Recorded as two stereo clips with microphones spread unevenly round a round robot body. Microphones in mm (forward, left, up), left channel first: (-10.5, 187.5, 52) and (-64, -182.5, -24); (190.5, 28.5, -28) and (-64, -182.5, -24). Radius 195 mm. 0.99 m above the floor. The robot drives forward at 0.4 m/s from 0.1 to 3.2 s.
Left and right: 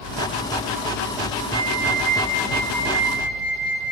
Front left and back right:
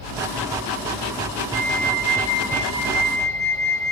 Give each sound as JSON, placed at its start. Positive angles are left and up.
{"t": 1.5, "sound": "a flute", "azimuth_deg": -105, "distance_m": 6.5}